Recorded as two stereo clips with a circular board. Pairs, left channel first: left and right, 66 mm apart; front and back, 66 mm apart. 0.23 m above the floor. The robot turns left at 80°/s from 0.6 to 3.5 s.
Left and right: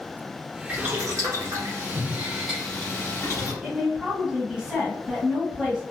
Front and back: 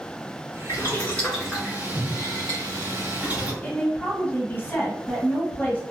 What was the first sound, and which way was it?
Boiling, 30° right.